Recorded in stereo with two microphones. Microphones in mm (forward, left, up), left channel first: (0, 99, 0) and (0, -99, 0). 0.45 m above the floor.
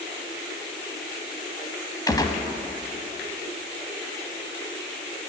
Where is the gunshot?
20° left (ahead or behind), 1.3 m.